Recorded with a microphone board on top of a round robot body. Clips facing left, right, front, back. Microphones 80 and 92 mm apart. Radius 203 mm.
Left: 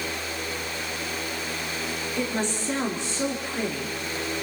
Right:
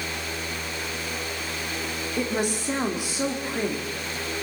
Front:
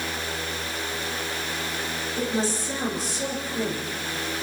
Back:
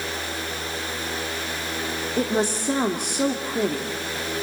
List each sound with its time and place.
2.2 s a woman speaking: 170° right, 2.5 m